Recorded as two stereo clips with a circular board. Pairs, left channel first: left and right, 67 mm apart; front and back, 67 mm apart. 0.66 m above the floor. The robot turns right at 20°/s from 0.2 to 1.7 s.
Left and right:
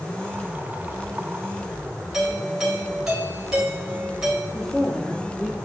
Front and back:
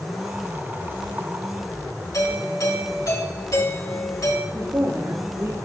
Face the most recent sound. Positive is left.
turn(degrees=165)